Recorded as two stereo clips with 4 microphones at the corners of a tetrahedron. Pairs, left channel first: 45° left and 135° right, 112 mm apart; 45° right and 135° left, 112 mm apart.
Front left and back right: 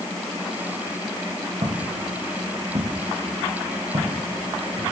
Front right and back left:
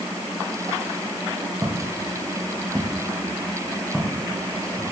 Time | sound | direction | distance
1.6 | footsteps | 160° right | 3 m